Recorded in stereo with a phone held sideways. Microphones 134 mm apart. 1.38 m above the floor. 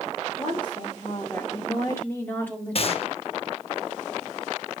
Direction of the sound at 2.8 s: 45° left (ahead or behind).